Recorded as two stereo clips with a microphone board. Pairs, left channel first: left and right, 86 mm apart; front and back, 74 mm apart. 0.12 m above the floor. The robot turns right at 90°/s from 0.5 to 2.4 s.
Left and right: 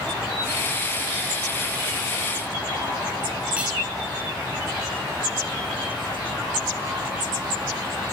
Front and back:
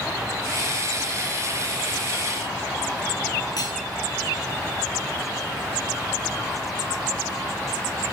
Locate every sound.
3.6 s cutlery clinking: 15° right, 1.8 m